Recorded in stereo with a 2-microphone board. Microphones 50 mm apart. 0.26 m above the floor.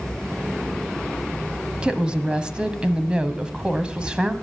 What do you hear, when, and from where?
1.8 s a woman speaking: 20° right (ahead or behind), 1.3 m